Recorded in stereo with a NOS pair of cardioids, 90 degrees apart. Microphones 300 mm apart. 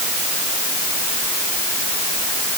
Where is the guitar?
No guitar in this recording.